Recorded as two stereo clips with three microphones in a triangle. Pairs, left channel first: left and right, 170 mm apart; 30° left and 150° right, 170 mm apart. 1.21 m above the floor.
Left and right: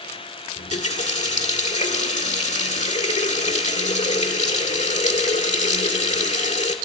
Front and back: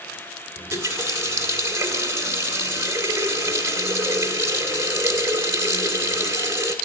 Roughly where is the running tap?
Behind left.